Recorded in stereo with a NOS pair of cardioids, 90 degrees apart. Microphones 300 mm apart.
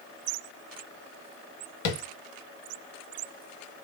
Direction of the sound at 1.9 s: 65° left.